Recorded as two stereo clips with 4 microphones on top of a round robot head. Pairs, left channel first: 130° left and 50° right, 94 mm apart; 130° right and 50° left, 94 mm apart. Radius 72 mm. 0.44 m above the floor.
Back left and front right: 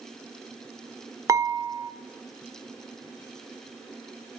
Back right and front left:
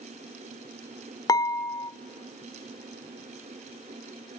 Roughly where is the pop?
No pop in this recording.